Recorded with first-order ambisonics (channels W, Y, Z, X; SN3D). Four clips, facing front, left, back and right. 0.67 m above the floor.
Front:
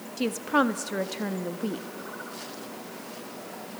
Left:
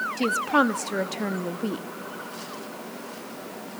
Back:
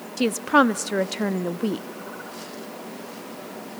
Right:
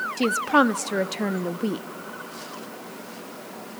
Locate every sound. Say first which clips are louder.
0.2 s a woman speaking: right 3 dB, back 6 dB; 155° right, 0.5 m